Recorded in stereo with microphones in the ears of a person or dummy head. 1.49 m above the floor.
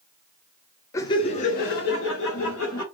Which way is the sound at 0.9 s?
20° left (ahead or behind).